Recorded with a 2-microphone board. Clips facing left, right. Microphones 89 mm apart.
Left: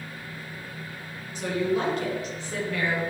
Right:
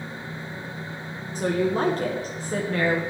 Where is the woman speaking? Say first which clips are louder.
Right 3 dB; 40° right (ahead or behind), 1.2 m.